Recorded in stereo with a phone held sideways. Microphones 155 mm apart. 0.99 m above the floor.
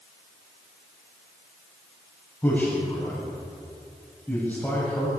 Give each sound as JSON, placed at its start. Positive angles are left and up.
{"t": 2.4, "sound": "a man speaking", "side_deg": 10, "distance_m": 6.5}